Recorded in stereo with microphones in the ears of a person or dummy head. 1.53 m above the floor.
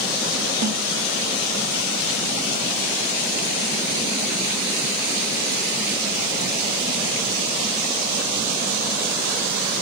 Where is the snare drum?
45° right (ahead or behind), 1.5 m.